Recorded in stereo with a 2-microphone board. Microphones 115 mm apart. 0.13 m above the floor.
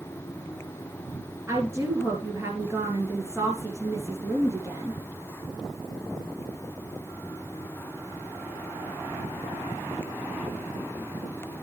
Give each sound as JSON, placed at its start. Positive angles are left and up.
{"t": 1.5, "sound": "a woman speaking", "side_deg": -25, "distance_m": 2.5}